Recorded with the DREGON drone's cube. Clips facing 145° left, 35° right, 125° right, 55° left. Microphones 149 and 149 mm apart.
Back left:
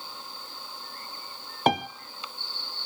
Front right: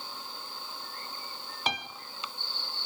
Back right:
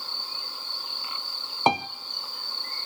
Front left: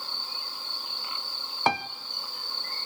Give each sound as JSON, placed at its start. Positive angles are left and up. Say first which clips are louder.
{"t": 1.7, "sound": "a piano", "louder": "back left 12 dB, back right 3 dB", "azimuth_deg": 170, "distance_m": 0.7}